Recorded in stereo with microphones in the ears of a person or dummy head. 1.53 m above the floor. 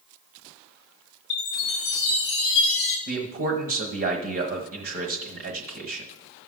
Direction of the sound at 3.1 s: 45° right (ahead or behind).